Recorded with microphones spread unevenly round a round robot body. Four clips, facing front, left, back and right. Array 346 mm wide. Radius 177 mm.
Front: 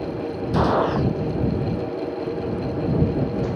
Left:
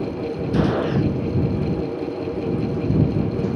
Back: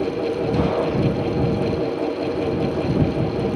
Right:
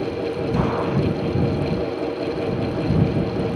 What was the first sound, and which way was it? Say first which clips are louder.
A gunshot: left 4 dB, front 5 dB; 70° left.